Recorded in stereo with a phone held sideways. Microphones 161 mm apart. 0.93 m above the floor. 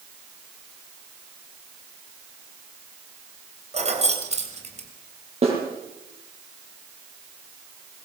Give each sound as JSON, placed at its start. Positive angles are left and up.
{"t": 3.7, "sound": "keys jangling", "side_deg": -45, "distance_m": 3.0}
{"t": 5.4, "sound": "a snare drum", "side_deg": -40, "distance_m": 8.0}